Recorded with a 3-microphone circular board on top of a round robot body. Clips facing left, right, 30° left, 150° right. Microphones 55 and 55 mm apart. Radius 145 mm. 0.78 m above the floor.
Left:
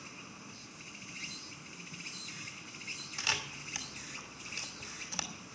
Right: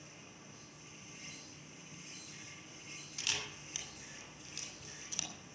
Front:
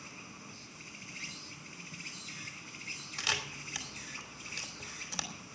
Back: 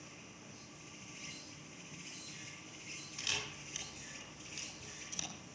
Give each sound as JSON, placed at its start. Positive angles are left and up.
{"t": 0.0, "sound": "an insect", "azimuth_deg": 55, "distance_m": 2.5}
{"t": 3.2, "sound": "a camera shutter", "azimuth_deg": 45, "distance_m": 3.0}